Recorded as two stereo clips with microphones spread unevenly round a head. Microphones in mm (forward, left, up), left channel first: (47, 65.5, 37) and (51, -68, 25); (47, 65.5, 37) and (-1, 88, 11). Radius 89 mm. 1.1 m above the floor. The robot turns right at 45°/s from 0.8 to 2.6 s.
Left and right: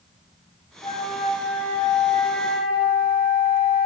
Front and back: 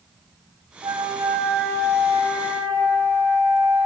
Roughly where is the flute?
Behind left.